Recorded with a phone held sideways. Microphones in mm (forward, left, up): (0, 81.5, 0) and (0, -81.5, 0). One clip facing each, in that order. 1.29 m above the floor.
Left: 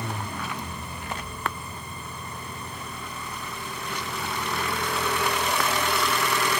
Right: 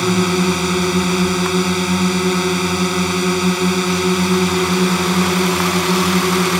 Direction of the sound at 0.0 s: 85° right.